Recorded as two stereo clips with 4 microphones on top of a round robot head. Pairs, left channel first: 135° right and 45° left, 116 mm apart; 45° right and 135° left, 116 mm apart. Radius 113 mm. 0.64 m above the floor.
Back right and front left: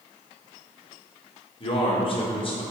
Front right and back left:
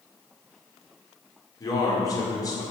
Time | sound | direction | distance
1.6 | a man speaking | 100° right | 2 m